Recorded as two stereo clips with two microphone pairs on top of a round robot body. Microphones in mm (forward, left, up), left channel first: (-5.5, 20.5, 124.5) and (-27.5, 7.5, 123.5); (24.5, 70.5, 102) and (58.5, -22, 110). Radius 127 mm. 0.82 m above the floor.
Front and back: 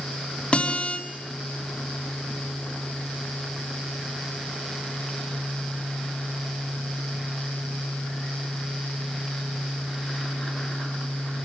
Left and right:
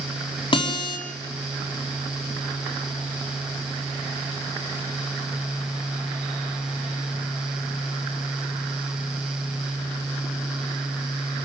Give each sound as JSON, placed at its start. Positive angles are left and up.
{"t": 0.5, "sound": "a guitar", "azimuth_deg": 75, "distance_m": 5.0}